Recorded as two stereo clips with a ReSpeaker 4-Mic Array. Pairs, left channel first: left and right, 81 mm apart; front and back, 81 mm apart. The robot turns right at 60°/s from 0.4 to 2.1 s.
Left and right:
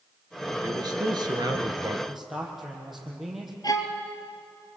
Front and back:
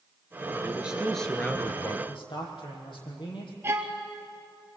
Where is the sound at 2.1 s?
5° right, 6.5 m.